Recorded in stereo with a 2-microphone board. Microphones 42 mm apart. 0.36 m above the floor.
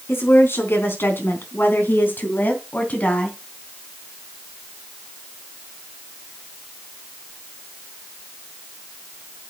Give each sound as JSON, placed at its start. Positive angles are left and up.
{"t": 0.1, "sound": "a woman speaking", "side_deg": 75, "distance_m": 4.0}